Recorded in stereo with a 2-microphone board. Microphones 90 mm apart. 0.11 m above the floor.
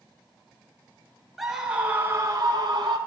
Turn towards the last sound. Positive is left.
turn(degrees=-45)  # may be behind; listen again after turning